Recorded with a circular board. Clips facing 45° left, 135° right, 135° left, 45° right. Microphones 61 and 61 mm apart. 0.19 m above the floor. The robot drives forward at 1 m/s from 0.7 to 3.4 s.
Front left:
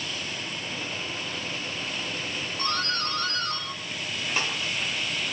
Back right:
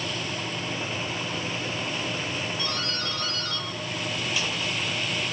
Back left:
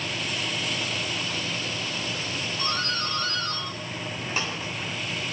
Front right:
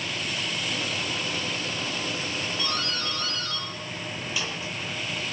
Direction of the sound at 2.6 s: 85° left.